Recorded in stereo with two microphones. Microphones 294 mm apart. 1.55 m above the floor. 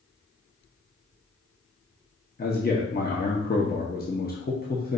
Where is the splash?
No splash in this recording.